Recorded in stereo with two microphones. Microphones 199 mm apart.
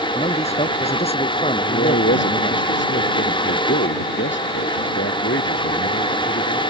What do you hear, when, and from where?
0.1 s a man speaking: 30° left (ahead or behind)
1.6 s a man speaking: 75° left (ahead or behind)